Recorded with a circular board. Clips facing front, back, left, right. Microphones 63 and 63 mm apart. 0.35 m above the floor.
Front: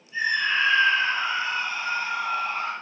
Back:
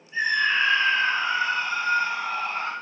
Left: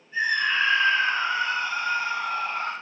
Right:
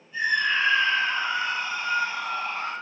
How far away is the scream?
About 3.5 m.